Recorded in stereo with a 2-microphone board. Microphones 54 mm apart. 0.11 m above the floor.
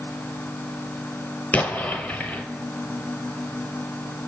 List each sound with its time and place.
1.5 s an explosion: 35° left (ahead or behind), 0.7 m